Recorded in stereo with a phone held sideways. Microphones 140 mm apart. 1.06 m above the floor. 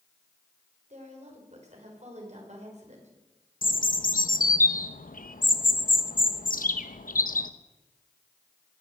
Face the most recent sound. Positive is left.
turn(degrees=80)